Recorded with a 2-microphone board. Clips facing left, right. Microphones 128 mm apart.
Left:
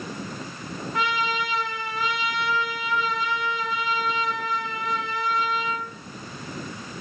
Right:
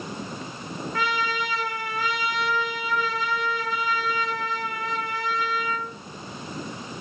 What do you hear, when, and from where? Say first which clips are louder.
0.9 s a trumpet: left 1 dB; 20° left (ahead or behind), 1.3 m